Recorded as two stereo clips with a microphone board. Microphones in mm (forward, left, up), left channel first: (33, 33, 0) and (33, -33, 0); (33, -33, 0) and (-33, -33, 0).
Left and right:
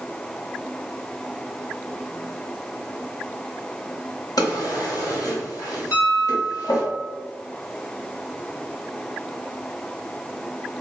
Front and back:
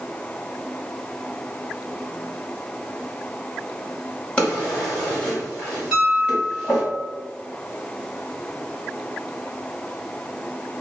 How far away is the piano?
About 1.7 m.